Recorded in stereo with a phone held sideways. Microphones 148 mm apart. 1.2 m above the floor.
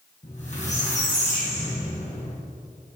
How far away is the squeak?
About 2 m.